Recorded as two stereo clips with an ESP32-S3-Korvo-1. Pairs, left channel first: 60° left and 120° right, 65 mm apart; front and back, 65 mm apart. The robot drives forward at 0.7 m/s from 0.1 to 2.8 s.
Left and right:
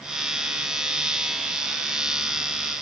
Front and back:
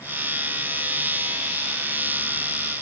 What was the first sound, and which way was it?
Only background noise.